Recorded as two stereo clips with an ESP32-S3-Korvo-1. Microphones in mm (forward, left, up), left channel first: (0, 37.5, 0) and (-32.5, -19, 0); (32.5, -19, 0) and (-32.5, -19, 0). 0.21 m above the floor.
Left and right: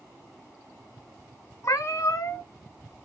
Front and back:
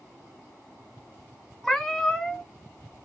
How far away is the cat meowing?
About 1.0 m.